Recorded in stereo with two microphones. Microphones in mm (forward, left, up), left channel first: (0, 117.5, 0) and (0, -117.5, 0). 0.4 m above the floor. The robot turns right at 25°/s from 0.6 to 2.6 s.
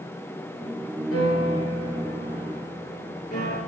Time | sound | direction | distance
1.1 | a piano | 105° left | 3 m